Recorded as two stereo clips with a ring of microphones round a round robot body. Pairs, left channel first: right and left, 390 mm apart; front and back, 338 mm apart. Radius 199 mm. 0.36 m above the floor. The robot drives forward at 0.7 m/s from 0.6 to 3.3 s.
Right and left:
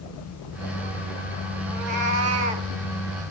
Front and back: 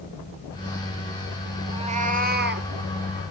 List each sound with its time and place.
1.7 s a cat meowing: 105° left, 2 m; by 2.7 s 120° left, 2.5 m